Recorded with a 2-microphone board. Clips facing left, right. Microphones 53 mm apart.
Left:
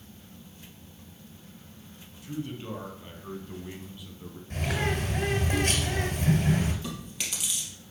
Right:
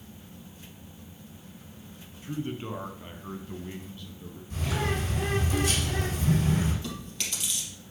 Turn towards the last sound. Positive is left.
turn(degrees=10)  # may be behind; listen again after turning